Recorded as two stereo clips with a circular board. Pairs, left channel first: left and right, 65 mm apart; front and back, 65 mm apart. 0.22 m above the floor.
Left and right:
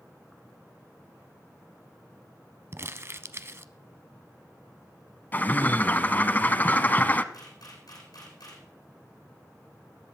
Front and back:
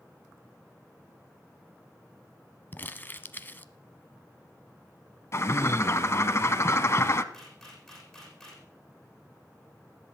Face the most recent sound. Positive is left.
turn(degrees=85)